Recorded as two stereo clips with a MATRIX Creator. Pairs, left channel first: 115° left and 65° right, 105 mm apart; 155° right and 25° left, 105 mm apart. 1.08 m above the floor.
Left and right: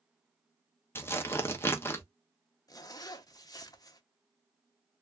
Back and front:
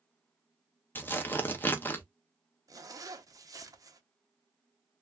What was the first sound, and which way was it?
Tearing paper, 155° left.